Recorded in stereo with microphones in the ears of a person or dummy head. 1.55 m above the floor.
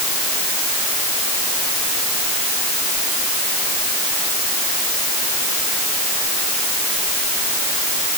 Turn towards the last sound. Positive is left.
No sound to turn to.